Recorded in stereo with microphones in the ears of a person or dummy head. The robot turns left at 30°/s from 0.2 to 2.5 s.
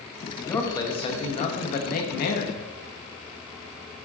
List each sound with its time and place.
0.4 s a man speaking: 170° left, 1.0 m; by 2.6 s 105° left, 1.0 m